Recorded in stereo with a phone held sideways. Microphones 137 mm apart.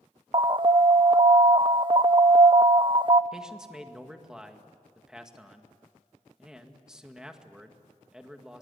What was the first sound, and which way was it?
An alarm, 35° right (ahead or behind).